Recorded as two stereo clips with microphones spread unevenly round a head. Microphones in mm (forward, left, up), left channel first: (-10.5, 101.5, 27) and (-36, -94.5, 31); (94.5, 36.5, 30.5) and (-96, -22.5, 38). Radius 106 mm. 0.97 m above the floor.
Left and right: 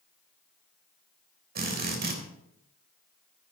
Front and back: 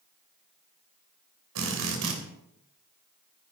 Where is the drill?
140° right, 3.5 m.